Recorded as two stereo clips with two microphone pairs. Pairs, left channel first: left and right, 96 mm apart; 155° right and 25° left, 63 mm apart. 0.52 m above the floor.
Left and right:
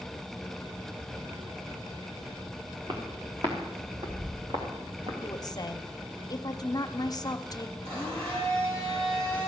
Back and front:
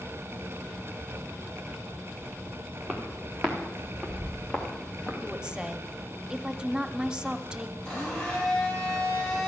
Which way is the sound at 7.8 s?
80° right.